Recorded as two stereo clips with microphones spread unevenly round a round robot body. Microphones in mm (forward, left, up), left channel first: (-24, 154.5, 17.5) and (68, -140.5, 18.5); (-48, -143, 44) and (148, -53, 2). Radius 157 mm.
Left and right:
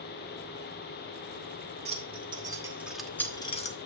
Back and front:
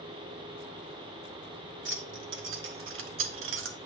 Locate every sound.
1.9 s keys jangling: 5° right, 1.6 m; by 3.8 s 45° left, 0.9 m